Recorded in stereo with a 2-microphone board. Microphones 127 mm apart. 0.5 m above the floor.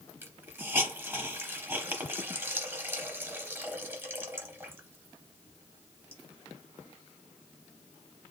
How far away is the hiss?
About 0.8 m.